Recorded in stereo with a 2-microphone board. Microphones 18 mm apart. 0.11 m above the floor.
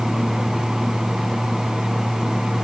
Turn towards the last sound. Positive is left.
No sound to turn to.